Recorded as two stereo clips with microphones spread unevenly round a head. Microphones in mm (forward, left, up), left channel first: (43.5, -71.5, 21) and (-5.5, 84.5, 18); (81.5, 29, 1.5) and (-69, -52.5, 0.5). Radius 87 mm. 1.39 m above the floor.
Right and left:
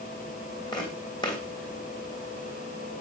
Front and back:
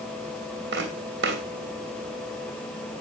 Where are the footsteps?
135° right, 3 m.